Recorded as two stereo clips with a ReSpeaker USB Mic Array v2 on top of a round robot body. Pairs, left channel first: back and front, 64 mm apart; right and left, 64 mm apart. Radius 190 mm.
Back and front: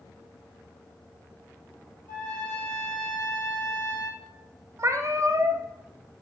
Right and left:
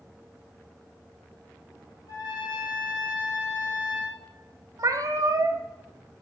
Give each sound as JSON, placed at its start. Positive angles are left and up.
{"t": 2.1, "sound": "a trumpet", "azimuth_deg": -110, "distance_m": 2.0}
{"t": 4.8, "sound": "a cat meowing", "azimuth_deg": 50, "distance_m": 0.5}